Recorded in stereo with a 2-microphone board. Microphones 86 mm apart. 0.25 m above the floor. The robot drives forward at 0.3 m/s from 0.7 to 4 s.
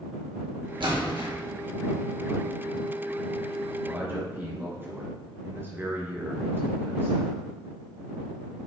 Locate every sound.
0.8 s a splash: 70° right (ahead or behind), 2.5 m; by 1.3 s 75° right (ahead or behind), 2.5 m
3.8 s a man speaking: 25° right (ahead or behind), 3 m